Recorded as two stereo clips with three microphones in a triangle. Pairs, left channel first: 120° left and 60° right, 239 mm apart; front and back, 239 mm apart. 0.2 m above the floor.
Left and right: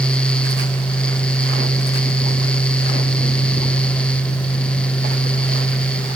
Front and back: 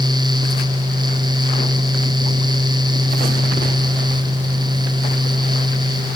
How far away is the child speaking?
I don't hear a child speaking.